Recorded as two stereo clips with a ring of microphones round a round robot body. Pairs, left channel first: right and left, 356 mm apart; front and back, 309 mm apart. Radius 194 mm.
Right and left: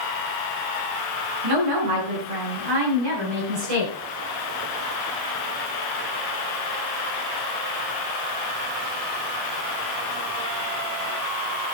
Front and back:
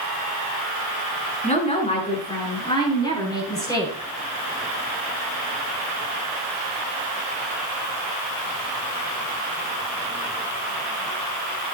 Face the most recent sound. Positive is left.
turn(degrees=80)